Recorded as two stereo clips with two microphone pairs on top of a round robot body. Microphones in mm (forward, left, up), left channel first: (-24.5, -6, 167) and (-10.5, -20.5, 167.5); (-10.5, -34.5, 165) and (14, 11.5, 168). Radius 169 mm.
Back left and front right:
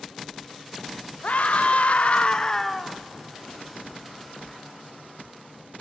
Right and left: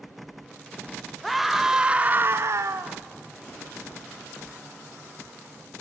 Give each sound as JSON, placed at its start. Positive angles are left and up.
{"t": 1.2, "sound": "a scream", "azimuth_deg": 150, "distance_m": 2.0}